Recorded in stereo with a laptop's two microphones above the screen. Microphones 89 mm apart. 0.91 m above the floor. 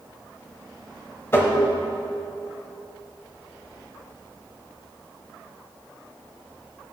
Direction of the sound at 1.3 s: 30° left (ahead or behind).